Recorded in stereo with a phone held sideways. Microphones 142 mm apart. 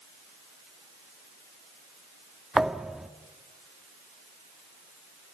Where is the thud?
5° right (ahead or behind), 0.7 m.